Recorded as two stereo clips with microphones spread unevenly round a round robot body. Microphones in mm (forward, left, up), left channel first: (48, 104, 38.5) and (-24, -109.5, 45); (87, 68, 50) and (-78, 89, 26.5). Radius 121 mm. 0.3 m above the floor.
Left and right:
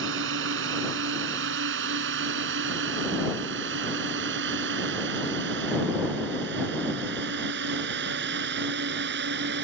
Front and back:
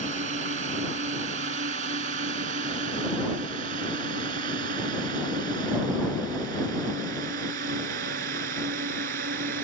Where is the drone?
140° right; by 9.6 s 150° right.